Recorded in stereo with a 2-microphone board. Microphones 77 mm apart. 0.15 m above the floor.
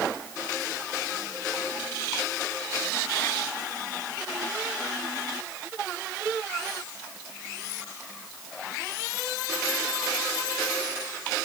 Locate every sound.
Only background noise.